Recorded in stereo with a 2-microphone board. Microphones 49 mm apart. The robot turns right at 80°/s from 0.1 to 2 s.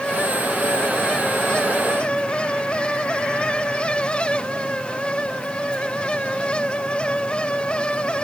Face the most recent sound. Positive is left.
No sound to turn to.